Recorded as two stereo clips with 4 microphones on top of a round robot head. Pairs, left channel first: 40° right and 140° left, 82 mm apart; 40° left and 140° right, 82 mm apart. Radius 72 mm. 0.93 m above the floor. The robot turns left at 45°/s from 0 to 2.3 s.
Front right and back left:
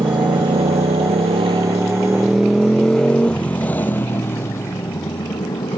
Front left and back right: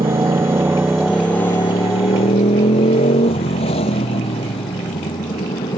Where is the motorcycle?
170° right; by 5.8 s 10° left.